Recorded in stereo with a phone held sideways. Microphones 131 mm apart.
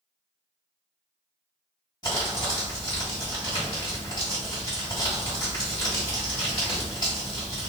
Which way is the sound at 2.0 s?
30° left (ahead or behind).